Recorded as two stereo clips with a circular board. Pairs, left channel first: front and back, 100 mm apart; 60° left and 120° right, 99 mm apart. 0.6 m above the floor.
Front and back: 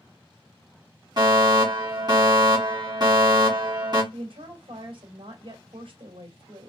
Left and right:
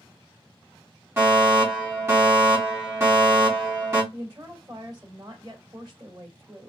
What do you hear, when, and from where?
1.2 s a fire alarm: 175° right, 3 m
4.1 s a woman speaking: 170° right, 2.5 m